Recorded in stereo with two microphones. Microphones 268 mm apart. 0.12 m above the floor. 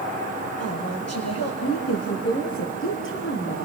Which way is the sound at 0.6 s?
60° left (ahead or behind).